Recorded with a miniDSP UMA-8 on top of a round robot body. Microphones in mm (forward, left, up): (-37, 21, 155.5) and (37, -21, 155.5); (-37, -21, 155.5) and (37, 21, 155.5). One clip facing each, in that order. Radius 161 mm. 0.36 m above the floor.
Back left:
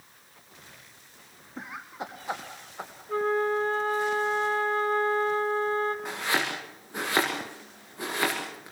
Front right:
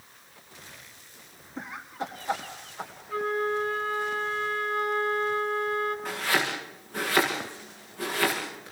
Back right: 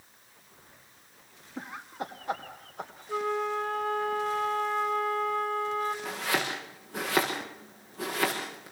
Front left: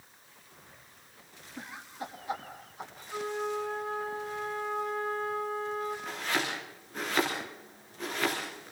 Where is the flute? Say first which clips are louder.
Back left 2 dB, back right 4 dB; 160° right, 2.5 m.